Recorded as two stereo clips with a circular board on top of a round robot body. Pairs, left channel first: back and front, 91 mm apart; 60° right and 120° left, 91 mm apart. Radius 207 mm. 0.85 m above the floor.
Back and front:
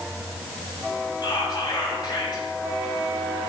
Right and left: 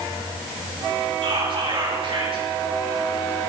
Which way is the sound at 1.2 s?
140° left.